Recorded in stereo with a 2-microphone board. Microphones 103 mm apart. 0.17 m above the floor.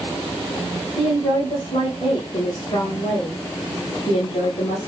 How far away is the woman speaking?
About 8.5 m.